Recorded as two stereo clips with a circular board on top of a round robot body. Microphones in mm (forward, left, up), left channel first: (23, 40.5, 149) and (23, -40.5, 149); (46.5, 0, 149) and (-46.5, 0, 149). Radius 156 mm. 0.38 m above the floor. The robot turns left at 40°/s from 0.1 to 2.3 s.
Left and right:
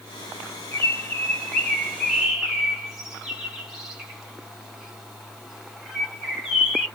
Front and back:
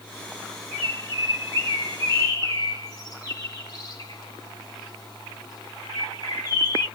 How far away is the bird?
About 1.8 m.